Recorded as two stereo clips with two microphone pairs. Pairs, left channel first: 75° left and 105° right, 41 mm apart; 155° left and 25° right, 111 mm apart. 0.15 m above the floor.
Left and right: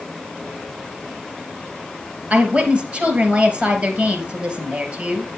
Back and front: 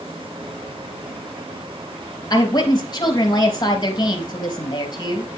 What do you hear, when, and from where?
2.3 s a woman speaking: 155° right, 3 m